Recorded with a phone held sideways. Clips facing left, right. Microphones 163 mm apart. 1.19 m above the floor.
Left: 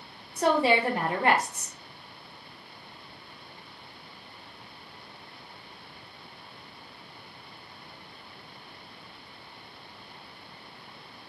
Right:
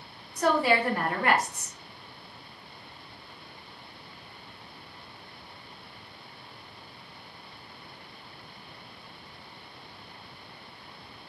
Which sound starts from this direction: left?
A woman speaking, at 0.4 s.